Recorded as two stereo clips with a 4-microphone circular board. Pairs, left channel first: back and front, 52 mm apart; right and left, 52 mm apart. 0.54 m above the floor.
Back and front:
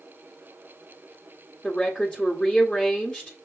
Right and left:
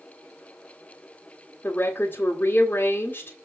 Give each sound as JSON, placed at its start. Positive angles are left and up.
{"t": 1.6, "sound": "a woman speaking", "azimuth_deg": -105, "distance_m": 1.7}